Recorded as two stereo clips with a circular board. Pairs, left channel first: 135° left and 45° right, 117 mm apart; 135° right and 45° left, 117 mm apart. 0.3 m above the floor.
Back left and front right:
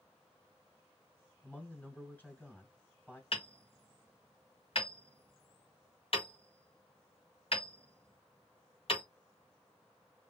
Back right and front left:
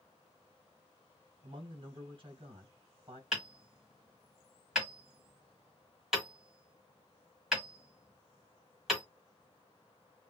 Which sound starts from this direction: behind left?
Hammering, at 3.3 s.